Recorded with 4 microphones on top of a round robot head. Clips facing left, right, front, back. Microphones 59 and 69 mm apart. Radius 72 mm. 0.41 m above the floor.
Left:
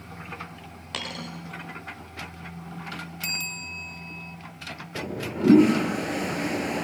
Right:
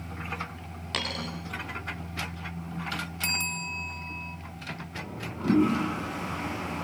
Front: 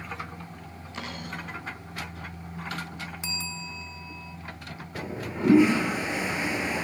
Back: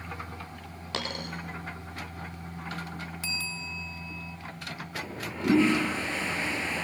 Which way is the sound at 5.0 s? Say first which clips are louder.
Left 10 dB, front 4 dB; 75° left.